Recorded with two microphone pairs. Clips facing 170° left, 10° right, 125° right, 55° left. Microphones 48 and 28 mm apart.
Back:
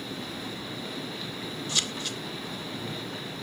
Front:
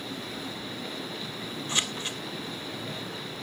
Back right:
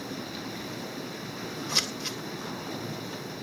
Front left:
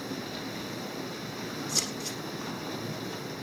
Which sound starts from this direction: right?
Scissors, at 1.7 s.